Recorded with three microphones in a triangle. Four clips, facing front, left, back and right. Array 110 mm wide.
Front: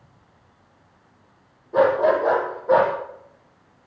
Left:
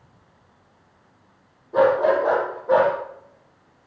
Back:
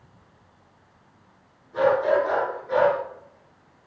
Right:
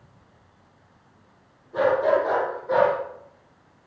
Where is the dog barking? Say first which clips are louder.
Left 3 dB, front 3 dB; 30° left, 6 m; by 2.9 s 20° left, 7 m.